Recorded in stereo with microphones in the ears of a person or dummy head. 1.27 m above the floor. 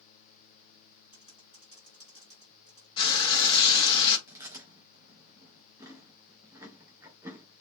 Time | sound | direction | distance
1.1 | typing on a keyboard | 30° left (ahead or behind) | 3 m
3.0 | frying | 25° left (ahead or behind) | 1.5 m
4.3 | chewing | 15° right (ahead or behind) | 2.5 m